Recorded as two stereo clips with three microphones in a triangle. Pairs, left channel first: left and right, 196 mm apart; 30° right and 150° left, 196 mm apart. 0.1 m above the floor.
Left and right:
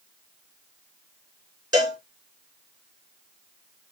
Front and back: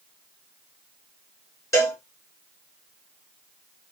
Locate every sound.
1.7 s a cowbell: 75° right, 1.4 m